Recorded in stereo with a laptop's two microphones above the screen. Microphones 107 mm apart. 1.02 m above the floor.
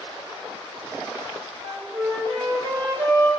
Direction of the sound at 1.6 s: 60° right (ahead or behind).